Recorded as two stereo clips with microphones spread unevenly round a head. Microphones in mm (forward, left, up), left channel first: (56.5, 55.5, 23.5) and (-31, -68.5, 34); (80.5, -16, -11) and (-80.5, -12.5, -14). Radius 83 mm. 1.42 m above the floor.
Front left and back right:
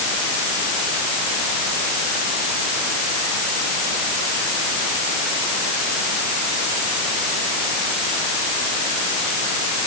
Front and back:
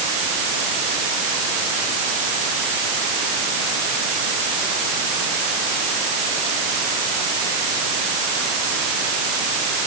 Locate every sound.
Only background noise.